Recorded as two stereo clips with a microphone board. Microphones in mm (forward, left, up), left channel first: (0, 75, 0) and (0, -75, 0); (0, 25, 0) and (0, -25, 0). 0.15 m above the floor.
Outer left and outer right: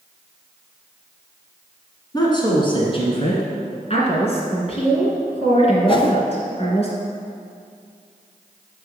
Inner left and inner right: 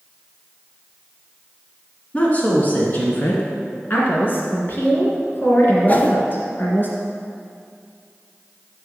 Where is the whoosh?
35° left (ahead or behind), 0.6 m.